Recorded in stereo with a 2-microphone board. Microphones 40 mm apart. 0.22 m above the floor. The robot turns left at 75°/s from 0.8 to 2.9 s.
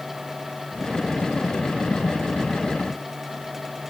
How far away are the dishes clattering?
I don't hear dishes clattering.